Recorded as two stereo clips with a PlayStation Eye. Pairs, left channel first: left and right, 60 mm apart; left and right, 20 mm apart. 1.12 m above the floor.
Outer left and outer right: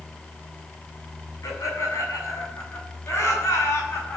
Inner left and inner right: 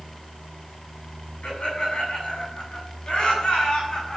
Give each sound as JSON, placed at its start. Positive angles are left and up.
{"t": 1.4, "sound": "laughter", "side_deg": 65, "distance_m": 7.5}